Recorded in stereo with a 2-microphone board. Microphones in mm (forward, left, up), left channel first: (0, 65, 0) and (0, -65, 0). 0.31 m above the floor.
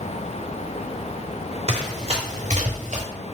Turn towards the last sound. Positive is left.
turn(degrees=-60)  # may be behind; listen again after turning